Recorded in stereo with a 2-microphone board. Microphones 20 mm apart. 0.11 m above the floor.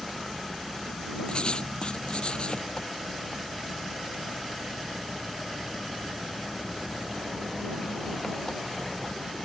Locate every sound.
0.0 s an engine running: 35° left (ahead or behind)
1.3 s writing: 55° left (ahead or behind)